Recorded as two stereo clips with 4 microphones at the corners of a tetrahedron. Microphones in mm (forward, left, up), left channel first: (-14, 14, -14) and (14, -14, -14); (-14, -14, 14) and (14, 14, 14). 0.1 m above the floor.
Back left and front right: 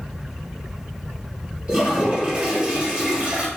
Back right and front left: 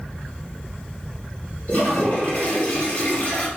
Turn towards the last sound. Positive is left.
turn(degrees=-105)